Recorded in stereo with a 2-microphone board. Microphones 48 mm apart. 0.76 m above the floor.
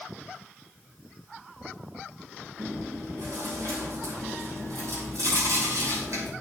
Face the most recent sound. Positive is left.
turn(degrees=-80)